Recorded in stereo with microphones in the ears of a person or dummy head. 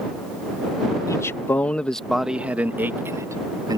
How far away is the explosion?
No explosion in this recording.